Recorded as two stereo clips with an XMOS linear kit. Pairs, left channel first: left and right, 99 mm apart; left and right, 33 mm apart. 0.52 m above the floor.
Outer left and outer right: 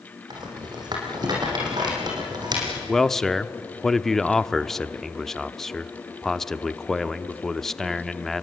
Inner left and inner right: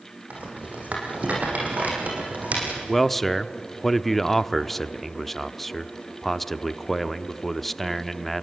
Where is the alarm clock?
I don't hear an alarm clock.